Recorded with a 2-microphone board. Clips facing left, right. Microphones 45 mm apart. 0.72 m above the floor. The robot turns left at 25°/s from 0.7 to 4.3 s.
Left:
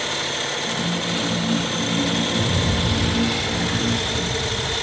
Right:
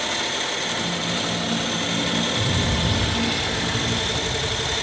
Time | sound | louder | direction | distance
2.3 | a rattle | left 1 dB | 135° left | 9.5 m